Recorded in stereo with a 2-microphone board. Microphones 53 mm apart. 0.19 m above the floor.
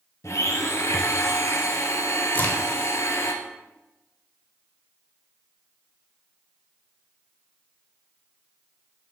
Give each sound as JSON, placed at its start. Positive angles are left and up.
{"t": 0.2, "sound": "a blender", "side_deg": 70, "distance_m": 0.8}
{"t": 2.3, "sound": "a crack", "side_deg": 35, "distance_m": 1.3}